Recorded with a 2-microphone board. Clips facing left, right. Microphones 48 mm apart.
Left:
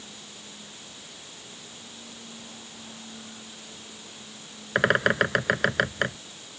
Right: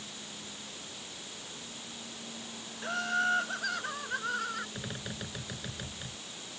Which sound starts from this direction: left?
A bird, at 4.8 s.